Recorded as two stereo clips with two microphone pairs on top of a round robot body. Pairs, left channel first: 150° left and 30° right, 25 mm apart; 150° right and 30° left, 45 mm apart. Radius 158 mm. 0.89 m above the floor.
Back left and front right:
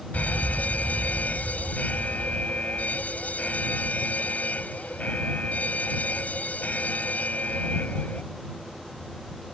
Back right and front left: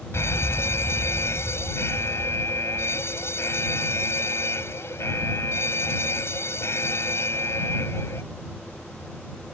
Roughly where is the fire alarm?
Behind.